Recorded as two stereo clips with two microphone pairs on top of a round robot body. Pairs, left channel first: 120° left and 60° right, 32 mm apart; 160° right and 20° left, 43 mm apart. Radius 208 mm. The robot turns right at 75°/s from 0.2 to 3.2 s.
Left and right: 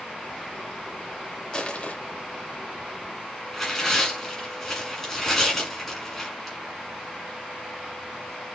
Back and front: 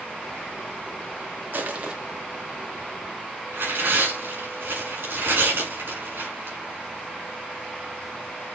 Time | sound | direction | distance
1.5 | crushing | 60° left | 1.0 m
3.5 | tearing paper | 35° left | 3 m